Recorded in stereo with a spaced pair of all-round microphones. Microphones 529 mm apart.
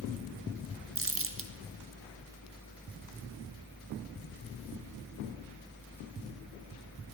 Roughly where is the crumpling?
Right.